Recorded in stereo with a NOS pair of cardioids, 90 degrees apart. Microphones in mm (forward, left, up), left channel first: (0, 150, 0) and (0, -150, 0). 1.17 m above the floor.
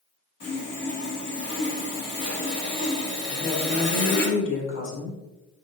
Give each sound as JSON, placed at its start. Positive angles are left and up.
{"t": 0.4, "sound": "sawing", "azimuth_deg": 50, "distance_m": 3.5}
{"t": 3.3, "sound": "a woman speaking", "azimuth_deg": 40, "distance_m": 4.0}